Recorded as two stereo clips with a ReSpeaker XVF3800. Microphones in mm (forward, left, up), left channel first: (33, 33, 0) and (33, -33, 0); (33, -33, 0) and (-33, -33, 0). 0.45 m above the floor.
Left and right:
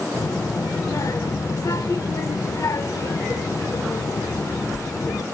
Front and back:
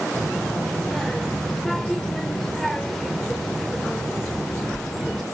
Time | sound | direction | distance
0.1 | a child speaking | 85° left | 0.6 m